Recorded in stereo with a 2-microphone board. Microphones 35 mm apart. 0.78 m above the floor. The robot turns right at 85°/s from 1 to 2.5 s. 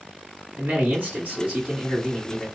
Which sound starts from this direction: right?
A man speaking, at 0.6 s.